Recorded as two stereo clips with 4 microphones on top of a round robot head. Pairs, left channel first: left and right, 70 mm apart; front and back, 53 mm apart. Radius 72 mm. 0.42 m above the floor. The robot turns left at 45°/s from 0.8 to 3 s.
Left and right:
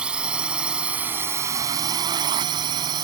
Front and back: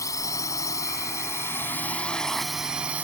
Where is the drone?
15° right; by 3.0 s 115° right.